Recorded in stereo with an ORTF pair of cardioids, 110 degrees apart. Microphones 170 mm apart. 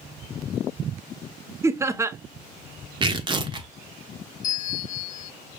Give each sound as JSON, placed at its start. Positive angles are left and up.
{"t": 1.6, "sound": "laughter", "azimuth_deg": -15, "distance_m": 0.5}
{"t": 3.0, "sound": "tearing paper", "azimuth_deg": -25, "distance_m": 0.9}
{"t": 4.4, "sound": "a bell", "azimuth_deg": 50, "distance_m": 0.7}